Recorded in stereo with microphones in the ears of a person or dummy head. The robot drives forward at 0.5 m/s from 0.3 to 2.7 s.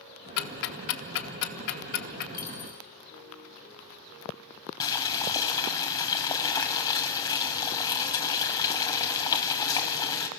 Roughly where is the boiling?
Left.